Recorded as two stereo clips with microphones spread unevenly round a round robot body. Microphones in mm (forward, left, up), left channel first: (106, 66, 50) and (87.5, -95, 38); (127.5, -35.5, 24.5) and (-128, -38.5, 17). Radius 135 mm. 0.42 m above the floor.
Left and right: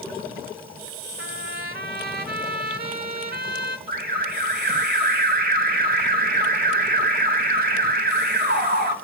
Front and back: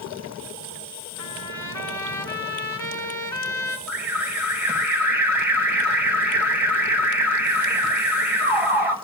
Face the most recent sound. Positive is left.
turn(degrees=-95)